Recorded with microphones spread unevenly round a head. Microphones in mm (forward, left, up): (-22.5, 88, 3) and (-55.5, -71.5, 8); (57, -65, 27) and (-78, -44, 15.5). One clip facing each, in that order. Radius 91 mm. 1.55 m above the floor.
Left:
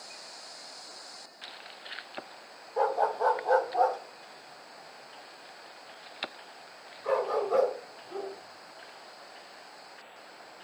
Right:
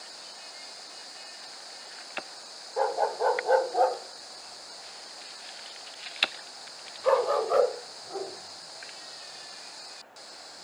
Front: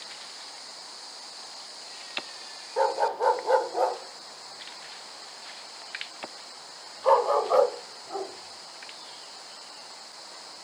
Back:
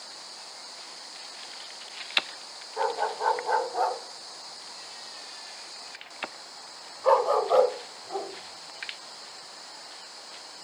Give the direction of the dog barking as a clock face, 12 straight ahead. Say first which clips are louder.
Even, front 4 dB; 1 o'clock.